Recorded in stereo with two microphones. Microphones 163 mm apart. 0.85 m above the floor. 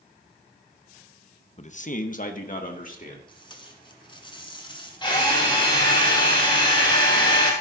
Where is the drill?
30° left (ahead or behind), 3 m.